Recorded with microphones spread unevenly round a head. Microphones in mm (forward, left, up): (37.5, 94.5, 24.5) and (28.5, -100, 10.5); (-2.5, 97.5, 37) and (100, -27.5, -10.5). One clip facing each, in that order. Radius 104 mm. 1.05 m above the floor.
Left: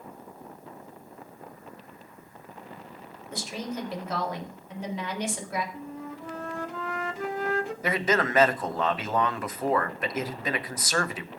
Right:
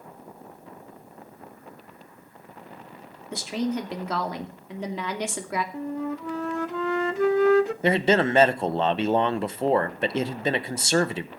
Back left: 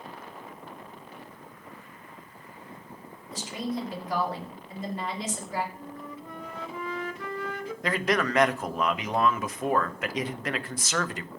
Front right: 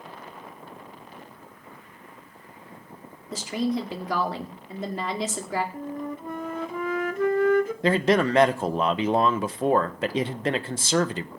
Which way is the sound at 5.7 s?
85° right.